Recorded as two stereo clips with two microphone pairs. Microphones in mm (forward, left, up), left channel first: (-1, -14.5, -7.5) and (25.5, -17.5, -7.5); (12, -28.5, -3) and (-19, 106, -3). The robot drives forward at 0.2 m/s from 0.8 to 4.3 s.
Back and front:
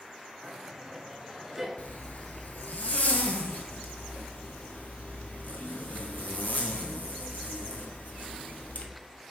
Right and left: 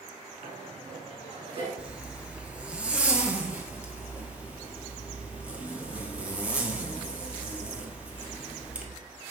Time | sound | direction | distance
0.4 | laughter | 75° left | 2 m
1.8 | a zipper | straight behind | 0.9 m